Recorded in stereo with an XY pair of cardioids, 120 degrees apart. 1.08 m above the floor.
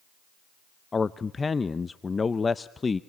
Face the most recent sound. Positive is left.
turn(degrees=25)